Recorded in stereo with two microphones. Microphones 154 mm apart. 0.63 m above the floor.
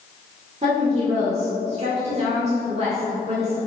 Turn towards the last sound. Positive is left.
turn(degrees=-40)  # may be behind; listen again after turning